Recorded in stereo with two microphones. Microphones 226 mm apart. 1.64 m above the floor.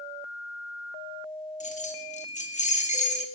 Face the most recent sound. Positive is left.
turn(degrees=30)  # may be behind; listen again after turning